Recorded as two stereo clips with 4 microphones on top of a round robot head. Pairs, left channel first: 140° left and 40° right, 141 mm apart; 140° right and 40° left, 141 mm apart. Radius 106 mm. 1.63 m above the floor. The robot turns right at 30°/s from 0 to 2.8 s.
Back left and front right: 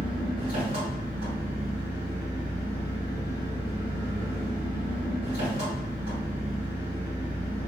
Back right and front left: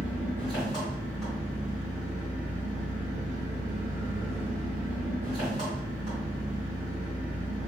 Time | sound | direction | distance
0.0 | an engine running | 100° right | 1.6 m